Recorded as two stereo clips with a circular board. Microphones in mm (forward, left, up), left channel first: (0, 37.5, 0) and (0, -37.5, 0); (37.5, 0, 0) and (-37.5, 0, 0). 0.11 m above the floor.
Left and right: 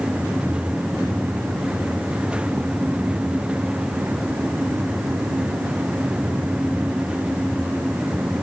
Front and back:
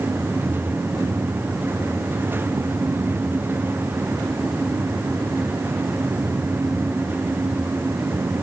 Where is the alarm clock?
No alarm clock in this recording.